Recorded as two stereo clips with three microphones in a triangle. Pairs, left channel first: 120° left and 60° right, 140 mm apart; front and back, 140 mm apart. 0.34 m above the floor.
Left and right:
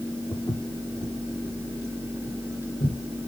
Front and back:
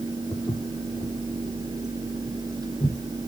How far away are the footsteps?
About 2 m.